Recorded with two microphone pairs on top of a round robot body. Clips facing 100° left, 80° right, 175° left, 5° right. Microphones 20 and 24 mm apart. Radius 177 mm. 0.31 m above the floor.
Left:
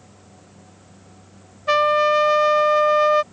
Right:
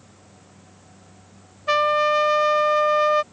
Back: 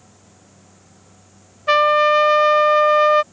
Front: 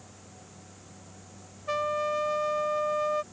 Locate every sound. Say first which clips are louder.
1.7 s a trumpet: left 2 dB, back 15 dB; 170° right